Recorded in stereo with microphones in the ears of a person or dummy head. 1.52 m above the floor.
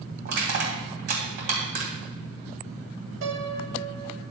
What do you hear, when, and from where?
0.2 s crushing: 55° right (ahead or behind), 3 m
3.2 s a piano: 80° right, 1.6 m